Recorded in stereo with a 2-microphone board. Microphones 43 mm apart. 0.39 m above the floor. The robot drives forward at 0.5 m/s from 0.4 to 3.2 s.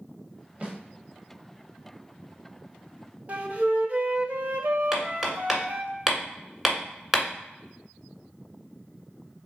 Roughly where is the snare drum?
Right.